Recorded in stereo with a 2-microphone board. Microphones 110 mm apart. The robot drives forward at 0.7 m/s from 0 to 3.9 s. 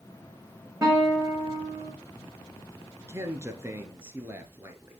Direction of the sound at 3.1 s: 25° right (ahead or behind).